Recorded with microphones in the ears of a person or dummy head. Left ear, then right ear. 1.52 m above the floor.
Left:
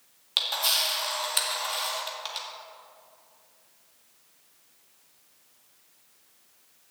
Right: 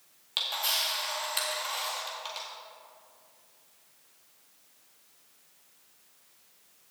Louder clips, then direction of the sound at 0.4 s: Left 4 dB; 15° left (ahead or behind).